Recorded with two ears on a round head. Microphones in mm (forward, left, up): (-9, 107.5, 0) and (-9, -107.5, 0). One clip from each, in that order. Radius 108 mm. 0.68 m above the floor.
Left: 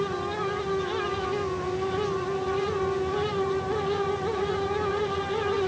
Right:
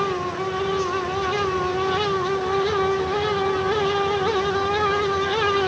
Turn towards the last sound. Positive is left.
No sound to turn to.